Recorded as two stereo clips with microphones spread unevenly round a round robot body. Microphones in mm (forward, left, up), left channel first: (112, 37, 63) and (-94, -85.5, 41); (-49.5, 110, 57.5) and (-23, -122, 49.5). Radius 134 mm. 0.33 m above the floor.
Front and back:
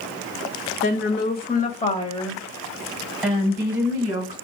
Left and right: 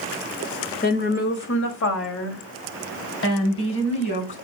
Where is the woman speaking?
55° left, 1.6 m; by 4.3 s 135° left, 3.5 m.